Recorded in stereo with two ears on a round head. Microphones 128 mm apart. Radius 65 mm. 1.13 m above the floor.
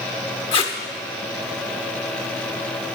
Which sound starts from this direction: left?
Tape being pulled, at 0.5 s.